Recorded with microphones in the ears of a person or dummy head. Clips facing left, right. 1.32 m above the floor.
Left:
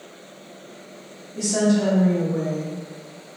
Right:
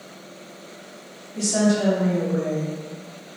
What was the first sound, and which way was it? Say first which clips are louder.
A woman speaking: left 1 dB; 15° left (ahead or behind).